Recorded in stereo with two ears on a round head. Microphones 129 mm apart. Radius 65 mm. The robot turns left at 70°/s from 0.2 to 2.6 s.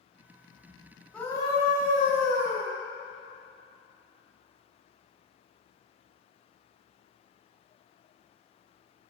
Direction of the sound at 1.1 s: 170° left.